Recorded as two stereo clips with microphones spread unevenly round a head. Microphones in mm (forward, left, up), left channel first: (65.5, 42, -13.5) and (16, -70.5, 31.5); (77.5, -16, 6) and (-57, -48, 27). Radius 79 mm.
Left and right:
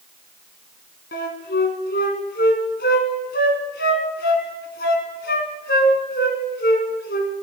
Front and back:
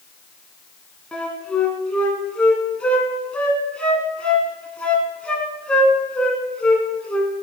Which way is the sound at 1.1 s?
100° left.